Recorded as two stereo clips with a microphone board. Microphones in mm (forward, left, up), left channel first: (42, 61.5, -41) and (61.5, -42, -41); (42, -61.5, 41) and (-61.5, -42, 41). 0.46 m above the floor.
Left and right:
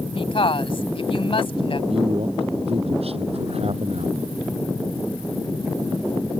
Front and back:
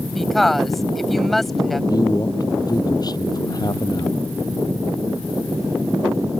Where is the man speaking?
60° right.